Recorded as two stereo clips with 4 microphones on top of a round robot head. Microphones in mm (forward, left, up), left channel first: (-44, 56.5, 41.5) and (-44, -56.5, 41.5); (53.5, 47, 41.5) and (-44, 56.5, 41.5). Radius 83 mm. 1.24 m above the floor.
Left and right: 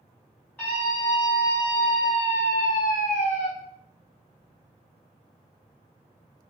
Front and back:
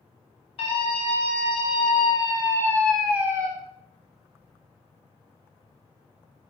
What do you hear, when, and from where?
0.6 s a scream: 15° left, 1.7 m; by 3.5 s 115° left, 0.7 m